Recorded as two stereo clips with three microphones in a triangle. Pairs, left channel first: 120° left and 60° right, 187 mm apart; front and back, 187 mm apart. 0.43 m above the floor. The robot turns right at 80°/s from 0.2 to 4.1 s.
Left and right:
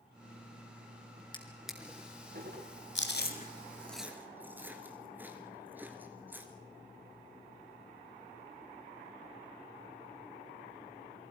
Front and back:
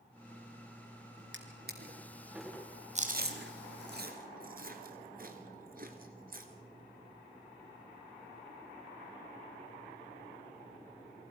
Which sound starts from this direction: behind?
A drawer, at 1.3 s.